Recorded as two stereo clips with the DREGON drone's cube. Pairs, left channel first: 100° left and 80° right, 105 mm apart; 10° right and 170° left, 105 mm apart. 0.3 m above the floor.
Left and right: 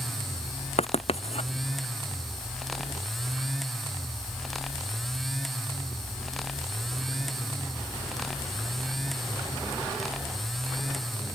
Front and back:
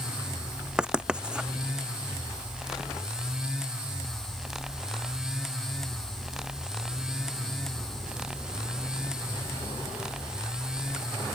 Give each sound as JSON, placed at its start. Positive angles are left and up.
{"t": 0.8, "sound": "writing", "azimuth_deg": 90}